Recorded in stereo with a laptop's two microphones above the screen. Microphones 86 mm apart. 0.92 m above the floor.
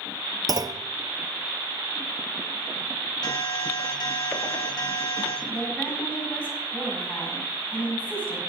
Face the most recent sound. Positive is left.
turn(degrees=15)  # may be behind; listen again after turning